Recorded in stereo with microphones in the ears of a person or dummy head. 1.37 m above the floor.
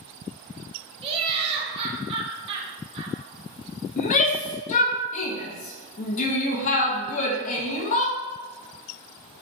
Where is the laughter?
25° right (ahead or behind), 0.9 m.